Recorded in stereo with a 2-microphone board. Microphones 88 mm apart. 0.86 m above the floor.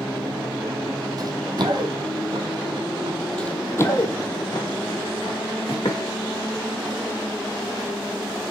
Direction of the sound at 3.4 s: 10° left (ahead or behind).